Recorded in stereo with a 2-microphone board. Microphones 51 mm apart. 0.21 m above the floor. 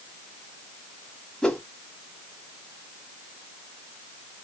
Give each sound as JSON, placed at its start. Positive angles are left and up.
{"t": 1.4, "sound": "a whoosh", "side_deg": 15, "distance_m": 1.2}